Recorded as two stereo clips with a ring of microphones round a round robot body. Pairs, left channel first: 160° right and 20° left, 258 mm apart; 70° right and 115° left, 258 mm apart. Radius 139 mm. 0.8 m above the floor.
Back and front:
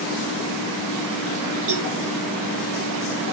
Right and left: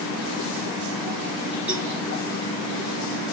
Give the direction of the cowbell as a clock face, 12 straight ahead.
11 o'clock.